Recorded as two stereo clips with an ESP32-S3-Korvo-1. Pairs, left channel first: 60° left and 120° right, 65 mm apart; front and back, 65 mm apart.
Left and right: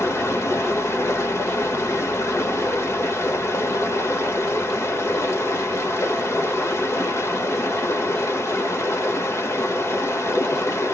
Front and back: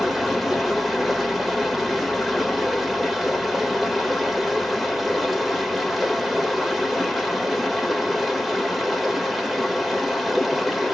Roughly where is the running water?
Left.